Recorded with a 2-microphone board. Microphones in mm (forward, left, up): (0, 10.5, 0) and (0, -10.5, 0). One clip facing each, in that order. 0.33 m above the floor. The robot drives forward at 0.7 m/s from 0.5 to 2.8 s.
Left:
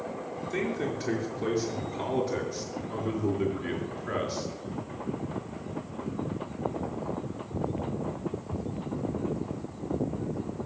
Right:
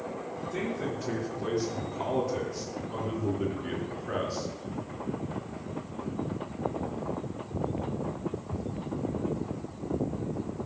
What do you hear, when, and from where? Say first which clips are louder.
0.5 s a man speaking: left 3 dB; 55° left (ahead or behind), 6 m; by 4.5 s 65° left (ahead or behind), 5.5 m